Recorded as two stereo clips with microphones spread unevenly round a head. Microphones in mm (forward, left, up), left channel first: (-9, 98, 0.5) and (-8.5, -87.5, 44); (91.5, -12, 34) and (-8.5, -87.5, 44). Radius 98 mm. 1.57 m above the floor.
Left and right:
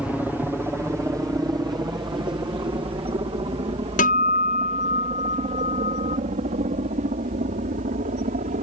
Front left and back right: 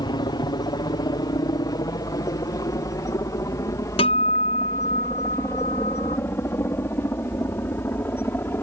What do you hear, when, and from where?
0.0 s a helicopter: 5° left; by 8.6 s 35° right
4.0 s a guitar: 50° left